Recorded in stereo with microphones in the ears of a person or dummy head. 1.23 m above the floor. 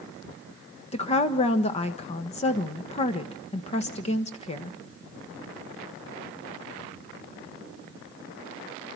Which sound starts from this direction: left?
A woman speaking, at 0.9 s.